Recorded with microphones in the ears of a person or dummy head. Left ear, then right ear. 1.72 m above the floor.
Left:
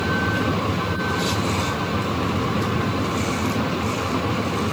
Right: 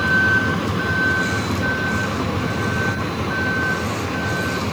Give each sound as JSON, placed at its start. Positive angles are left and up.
{"t": 0.0, "sound": "a vehicle", "side_deg": -45}